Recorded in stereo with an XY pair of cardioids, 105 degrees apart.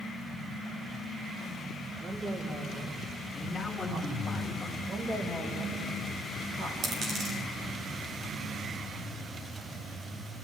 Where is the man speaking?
15° left, 2.5 m.